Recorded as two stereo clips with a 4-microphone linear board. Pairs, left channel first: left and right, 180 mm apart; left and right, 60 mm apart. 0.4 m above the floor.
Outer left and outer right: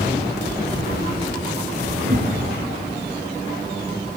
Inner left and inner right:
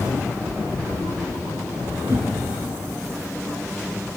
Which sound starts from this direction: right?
A whoosh, at 2.0 s.